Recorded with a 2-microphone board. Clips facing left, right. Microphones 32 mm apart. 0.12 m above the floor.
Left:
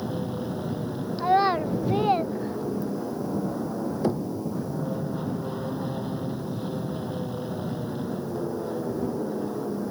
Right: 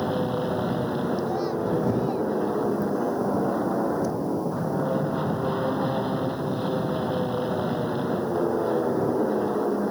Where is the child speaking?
50° left (ahead or behind).